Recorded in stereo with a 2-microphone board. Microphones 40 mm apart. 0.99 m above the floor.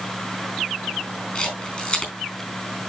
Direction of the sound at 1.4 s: 20° left (ahead or behind).